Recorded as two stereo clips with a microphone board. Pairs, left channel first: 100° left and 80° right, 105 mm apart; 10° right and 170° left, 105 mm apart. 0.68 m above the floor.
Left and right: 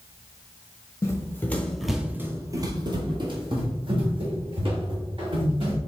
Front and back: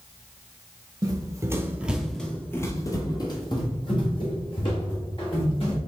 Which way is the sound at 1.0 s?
150° left.